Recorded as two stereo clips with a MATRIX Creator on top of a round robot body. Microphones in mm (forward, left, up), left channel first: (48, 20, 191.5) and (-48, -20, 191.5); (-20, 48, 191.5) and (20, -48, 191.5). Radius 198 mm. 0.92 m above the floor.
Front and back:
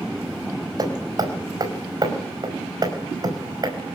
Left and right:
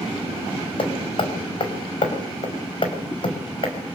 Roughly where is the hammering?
Behind left.